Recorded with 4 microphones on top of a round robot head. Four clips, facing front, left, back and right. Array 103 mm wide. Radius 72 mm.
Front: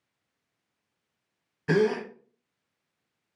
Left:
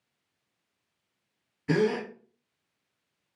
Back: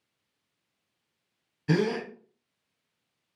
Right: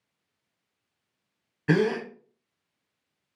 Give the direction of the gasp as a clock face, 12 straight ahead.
2 o'clock.